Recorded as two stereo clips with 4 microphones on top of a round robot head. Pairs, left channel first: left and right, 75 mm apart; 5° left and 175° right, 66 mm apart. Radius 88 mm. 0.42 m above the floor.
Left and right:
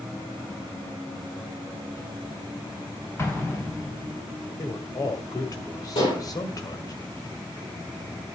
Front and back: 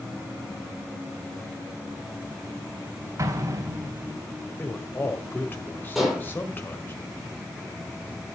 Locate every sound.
3.2 s an explosion: 145° left, 3 m
4.6 s a man speaking: 60° left, 1.9 m
6.0 s dishes clattering: 95° left, 8.5 m